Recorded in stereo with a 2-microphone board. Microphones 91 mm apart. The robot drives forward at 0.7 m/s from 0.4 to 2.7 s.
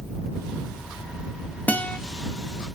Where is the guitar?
20° left (ahead or behind), 1.1 m.